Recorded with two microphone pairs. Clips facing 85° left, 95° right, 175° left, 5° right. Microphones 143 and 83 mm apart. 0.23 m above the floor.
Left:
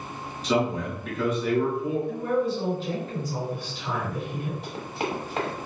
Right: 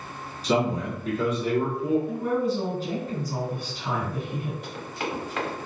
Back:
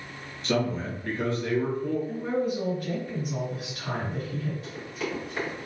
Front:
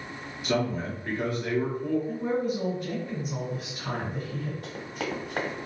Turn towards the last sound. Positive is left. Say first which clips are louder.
# left 2 dB, even
turn(degrees=25)